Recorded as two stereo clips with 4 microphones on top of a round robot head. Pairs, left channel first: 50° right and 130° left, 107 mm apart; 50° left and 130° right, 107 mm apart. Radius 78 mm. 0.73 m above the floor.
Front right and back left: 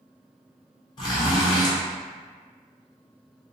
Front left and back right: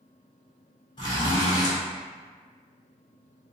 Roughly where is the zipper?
Ahead.